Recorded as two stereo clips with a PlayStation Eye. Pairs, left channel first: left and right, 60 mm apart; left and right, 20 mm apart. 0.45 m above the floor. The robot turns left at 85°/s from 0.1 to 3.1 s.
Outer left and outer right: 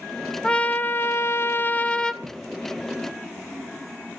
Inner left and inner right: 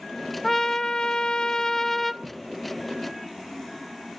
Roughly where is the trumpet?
Behind.